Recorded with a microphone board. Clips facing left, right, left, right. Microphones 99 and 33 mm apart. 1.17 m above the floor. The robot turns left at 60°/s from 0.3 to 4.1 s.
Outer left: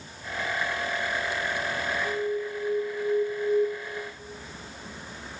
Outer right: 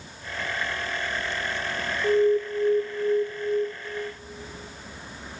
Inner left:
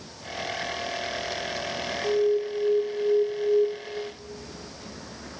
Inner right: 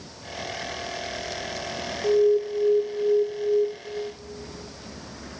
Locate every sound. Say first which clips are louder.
2.0 s an alarm: outer right 13 dB, inner right 4 dB; 95° right, 2 m; by 3.7 s 170° left, 2 m